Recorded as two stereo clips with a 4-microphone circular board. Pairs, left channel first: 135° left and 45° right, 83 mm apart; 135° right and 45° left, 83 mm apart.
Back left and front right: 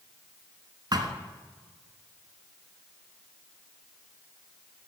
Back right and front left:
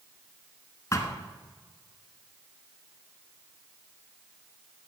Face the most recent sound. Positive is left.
turn(degrees=-80)